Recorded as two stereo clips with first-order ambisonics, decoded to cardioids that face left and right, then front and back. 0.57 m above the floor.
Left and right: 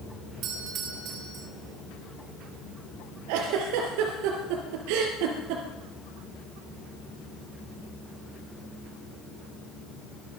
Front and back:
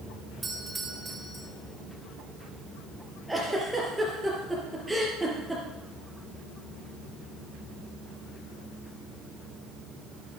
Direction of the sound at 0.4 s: 110° right.